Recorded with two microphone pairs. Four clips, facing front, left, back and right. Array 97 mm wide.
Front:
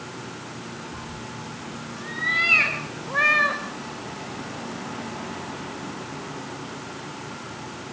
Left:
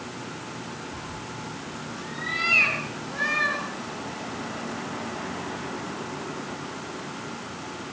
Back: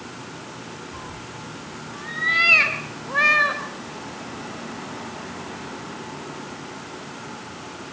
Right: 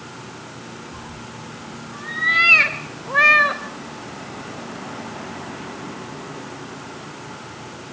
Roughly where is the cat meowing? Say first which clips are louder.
Even, even; behind right.